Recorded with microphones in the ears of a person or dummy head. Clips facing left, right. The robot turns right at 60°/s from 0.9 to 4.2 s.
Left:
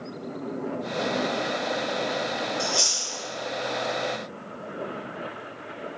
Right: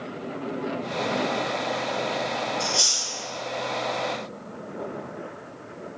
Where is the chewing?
45° left (ahead or behind), 1.8 m; by 3.1 s 15° left (ahead or behind), 1.8 m.